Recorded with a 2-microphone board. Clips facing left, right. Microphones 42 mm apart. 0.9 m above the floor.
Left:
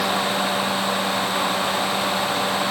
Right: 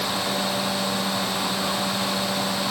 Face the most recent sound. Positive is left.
No sound to turn to.